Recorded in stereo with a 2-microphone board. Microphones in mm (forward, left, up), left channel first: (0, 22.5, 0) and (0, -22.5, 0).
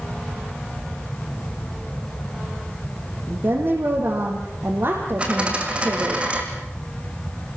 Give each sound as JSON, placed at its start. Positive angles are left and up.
{"t": 3.3, "sound": "a woman speaking", "side_deg": -65, "distance_m": 4.0}
{"t": 5.2, "sound": "a dropped coin", "side_deg": -25, "distance_m": 4.0}